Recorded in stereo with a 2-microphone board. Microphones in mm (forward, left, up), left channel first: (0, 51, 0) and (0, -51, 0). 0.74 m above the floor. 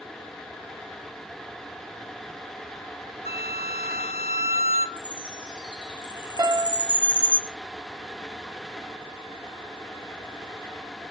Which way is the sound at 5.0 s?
45° left (ahead or behind).